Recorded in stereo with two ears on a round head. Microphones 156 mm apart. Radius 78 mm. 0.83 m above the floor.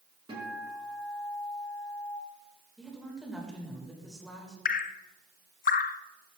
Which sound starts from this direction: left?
Dripping, at 4.7 s.